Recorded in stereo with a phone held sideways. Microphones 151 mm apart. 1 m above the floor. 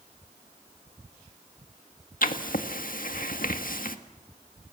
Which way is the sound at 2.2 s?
70° left (ahead or behind).